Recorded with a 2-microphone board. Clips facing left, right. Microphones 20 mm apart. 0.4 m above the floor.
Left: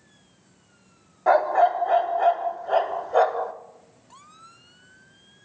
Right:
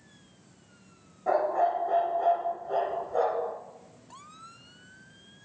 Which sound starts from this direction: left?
A dog barking, at 1.3 s.